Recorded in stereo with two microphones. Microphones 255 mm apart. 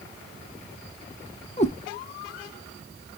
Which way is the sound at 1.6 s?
25° left (ahead or behind).